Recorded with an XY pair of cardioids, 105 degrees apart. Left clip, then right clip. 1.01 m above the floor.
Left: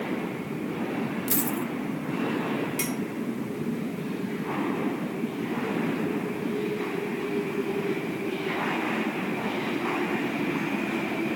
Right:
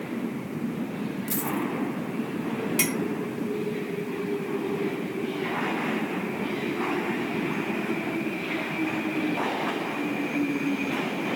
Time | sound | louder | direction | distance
1.3 | a dropped coin | right 3 dB | 35° left | 1.4 m
2.8 | a clink | right 4 dB | 45° right | 1.6 m